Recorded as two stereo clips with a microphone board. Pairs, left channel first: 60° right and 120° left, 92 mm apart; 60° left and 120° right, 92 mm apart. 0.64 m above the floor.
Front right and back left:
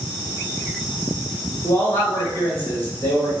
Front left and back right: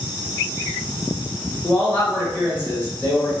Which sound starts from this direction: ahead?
A man speaking, at 1.6 s.